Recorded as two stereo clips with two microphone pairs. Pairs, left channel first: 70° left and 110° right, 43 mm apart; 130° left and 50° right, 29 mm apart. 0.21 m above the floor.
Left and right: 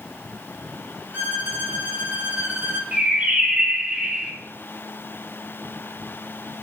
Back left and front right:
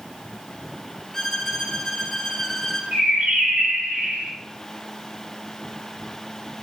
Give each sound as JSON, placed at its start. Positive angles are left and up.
{"t": 1.1, "sound": "a violin", "azimuth_deg": -145, "distance_m": 2.5}
{"t": 2.9, "sound": "a bird", "azimuth_deg": -55, "distance_m": 2.5}